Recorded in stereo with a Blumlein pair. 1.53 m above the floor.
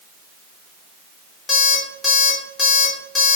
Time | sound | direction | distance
1.5 | an alarm clock | 15° left | 3 m